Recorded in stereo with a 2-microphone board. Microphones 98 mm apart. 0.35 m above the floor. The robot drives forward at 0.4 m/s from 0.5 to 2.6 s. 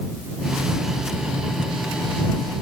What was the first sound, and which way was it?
Only background noise.